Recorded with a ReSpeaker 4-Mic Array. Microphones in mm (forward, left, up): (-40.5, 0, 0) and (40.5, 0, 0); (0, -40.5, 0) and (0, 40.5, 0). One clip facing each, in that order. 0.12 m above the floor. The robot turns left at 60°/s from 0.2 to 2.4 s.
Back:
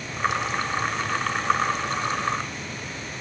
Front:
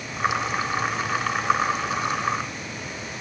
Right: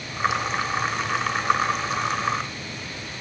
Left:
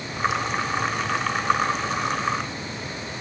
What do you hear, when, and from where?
Only background noise.